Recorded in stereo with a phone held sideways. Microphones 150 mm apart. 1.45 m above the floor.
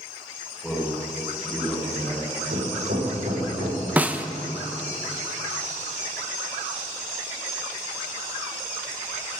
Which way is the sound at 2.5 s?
70° right (ahead or behind).